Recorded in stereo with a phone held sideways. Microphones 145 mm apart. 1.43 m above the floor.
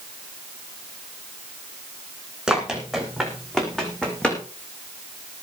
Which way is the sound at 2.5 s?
5° right (ahead or behind).